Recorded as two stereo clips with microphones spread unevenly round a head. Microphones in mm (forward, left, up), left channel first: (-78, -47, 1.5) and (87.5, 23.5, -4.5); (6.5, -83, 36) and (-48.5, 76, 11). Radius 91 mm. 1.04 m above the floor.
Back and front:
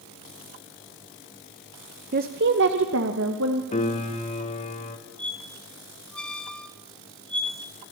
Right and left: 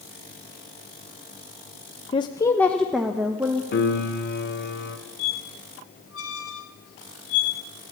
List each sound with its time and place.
2.1 s a woman speaking: 10° right, 0.9 m; by 3.6 s 35° left, 1.7 m
3.7 s a piano: 100° right, 2 m
5.2 s a squeak: 70° right, 3 m